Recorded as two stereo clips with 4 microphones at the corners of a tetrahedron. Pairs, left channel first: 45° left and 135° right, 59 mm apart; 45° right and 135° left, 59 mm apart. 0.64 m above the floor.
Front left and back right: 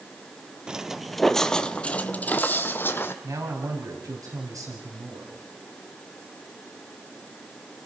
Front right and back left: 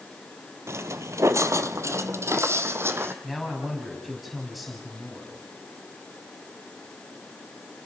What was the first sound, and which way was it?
Footsteps, 155° left.